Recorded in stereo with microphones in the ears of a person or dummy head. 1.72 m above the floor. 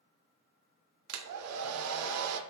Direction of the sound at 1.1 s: 80° right.